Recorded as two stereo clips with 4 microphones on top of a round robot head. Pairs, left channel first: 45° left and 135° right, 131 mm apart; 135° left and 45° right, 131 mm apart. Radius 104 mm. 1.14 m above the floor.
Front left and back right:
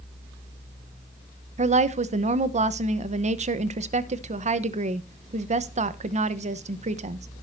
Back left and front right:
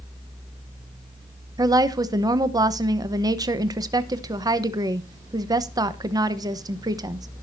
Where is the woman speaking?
105° right, 1.1 m.